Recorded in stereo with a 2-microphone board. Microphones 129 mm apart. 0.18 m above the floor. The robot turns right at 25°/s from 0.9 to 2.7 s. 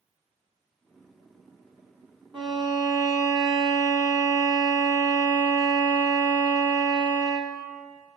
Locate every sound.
2.3 s a violin: 45° right (ahead or behind), 1.2 m; by 7.7 s 35° right (ahead or behind), 1.2 m